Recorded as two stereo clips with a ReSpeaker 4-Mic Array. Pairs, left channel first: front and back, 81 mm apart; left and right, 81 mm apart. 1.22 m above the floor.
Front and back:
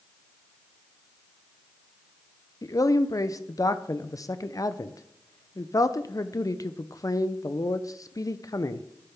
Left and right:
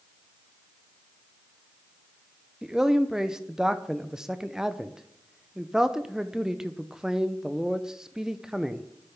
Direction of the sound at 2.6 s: 10° right.